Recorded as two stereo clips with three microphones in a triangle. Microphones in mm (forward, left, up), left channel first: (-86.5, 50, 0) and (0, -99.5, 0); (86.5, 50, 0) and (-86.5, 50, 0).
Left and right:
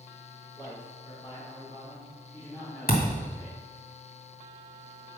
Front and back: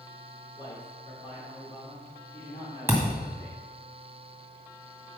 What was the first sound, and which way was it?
A man speaking, 55° left.